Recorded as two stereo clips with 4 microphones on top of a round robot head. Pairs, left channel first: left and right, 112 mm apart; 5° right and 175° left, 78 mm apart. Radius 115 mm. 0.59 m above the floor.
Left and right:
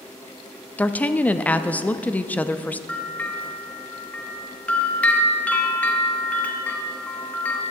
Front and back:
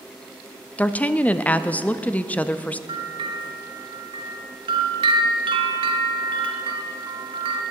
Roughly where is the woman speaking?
Ahead left.